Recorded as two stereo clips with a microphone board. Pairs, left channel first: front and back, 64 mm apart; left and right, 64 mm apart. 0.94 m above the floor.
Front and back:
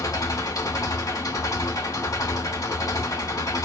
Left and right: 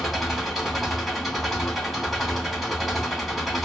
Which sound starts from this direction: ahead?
An engine running, at 0.0 s.